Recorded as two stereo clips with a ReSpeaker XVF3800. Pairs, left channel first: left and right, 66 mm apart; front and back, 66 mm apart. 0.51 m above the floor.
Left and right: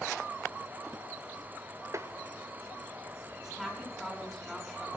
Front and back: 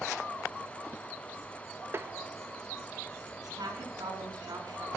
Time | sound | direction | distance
1.9 | tapping | 125° right | 0.7 m
3.4 | a woman speaking | 170° right | 5 m